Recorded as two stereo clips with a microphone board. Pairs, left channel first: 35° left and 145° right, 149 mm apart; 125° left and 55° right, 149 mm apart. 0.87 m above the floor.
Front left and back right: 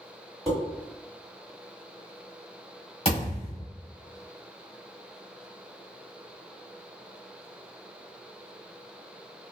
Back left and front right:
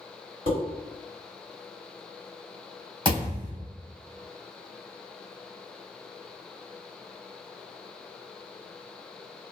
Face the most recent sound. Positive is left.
turn(degrees=-5)